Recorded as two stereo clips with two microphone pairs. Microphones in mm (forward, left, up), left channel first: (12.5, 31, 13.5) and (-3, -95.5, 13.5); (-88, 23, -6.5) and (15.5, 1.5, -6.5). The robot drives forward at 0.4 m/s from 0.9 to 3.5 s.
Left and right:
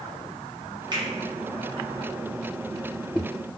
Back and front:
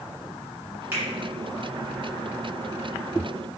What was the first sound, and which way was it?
A finger snap, 70° right.